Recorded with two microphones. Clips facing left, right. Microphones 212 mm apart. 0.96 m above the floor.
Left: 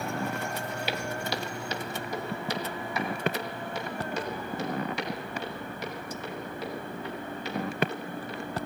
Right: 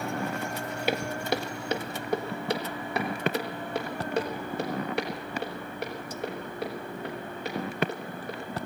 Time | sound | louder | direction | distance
0.9 | footsteps | right 7 dB | 50° right (ahead or behind) | 1.4 m